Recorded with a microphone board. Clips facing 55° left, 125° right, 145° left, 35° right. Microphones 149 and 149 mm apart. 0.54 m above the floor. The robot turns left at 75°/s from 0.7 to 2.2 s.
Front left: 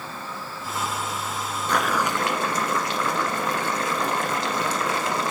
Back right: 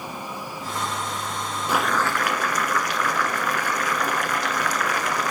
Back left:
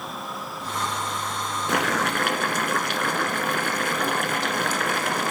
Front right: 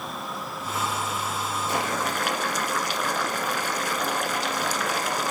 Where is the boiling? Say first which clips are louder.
Even, back left 4 dB; 155° left, 1.3 m; by 5.3 s 120° left, 1.3 m.